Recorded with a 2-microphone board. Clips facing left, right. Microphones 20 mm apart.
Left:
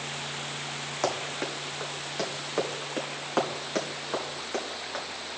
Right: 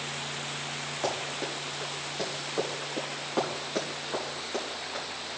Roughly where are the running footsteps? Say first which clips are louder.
Left 2 dB; left.